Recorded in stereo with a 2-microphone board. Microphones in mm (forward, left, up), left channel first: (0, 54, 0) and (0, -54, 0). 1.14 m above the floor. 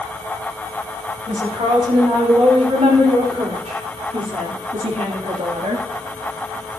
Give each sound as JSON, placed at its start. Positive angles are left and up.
{"t": 1.3, "sound": "a woman speaking", "side_deg": -65, "distance_m": 5.5}